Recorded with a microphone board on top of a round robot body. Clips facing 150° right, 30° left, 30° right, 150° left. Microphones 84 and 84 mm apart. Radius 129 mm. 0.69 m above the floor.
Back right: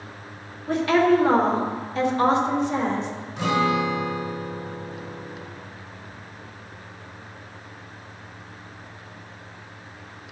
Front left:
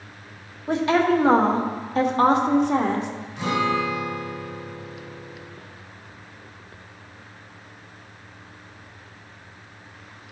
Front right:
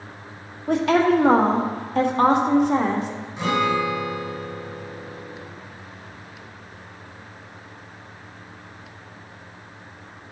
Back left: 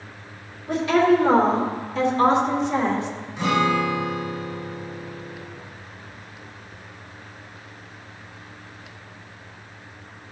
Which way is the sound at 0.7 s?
40° right.